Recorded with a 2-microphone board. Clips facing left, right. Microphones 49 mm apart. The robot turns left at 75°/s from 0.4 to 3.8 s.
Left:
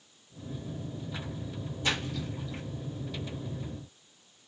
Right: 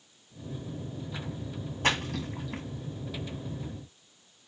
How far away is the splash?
About 1.2 m.